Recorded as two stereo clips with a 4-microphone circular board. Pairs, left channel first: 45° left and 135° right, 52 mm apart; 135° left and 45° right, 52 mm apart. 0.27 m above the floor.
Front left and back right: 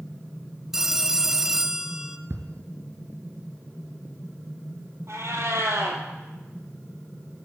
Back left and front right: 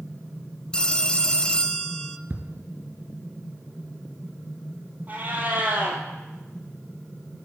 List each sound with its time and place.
0.7 s a phone ringing: 160° left, 0.5 m
2.3 s ticking: 100° right, 1.2 m
5.1 s a cat meowing: 100° right, 1.9 m